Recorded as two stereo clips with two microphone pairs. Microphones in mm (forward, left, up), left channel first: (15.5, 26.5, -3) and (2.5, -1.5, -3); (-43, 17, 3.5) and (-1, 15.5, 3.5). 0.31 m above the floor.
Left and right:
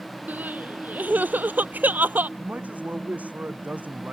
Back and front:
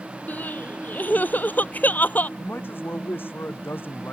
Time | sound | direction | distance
0.3 | crying | 135° right | ?
2.4 | a man speaking | 150° right | ?